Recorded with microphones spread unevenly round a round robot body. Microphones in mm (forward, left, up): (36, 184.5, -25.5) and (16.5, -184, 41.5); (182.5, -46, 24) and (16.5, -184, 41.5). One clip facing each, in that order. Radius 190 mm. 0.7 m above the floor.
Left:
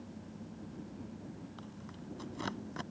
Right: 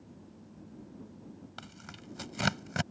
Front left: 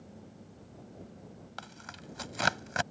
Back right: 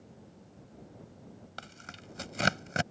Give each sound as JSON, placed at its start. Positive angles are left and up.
{"t": 1.6, "sound": "tearing paper", "azimuth_deg": -80}